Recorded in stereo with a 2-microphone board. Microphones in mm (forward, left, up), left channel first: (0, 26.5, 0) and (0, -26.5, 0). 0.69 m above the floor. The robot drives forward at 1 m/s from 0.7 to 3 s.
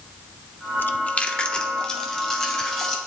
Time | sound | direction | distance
0.8 | chewing | 40° left (ahead or behind) | 0.5 m